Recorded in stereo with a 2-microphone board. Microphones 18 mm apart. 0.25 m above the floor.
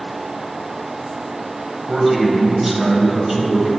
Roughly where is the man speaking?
Centre.